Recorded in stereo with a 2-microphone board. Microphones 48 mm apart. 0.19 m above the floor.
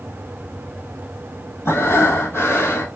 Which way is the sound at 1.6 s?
60° left (ahead or behind).